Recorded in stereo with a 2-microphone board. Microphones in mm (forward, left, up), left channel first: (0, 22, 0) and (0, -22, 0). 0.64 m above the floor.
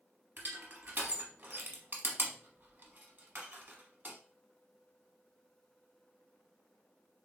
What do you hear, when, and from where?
0.4 s crushing: 45° right (ahead or behind), 0.8 m